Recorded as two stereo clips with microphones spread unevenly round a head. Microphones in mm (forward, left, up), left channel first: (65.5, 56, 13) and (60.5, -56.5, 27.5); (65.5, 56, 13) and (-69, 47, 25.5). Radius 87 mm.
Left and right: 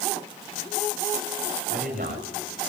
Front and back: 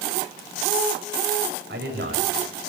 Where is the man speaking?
140° right, 8 m.